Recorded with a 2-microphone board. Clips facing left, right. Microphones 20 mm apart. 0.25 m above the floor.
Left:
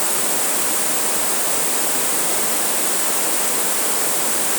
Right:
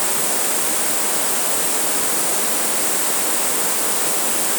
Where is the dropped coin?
No dropped coin in this recording.